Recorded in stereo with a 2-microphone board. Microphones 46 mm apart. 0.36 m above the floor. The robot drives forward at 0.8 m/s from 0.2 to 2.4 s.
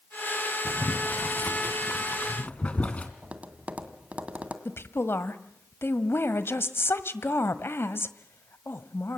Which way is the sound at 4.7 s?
60° left (ahead or behind).